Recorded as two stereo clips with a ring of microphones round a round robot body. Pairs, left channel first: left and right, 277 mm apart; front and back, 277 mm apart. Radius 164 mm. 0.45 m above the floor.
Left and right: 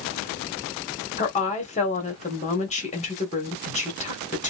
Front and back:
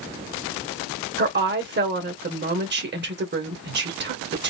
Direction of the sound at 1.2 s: 145° left.